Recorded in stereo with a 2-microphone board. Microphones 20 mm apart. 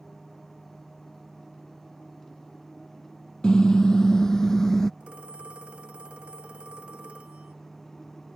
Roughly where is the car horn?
Left.